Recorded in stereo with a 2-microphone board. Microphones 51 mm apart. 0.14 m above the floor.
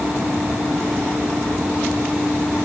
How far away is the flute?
I don't hear a flute.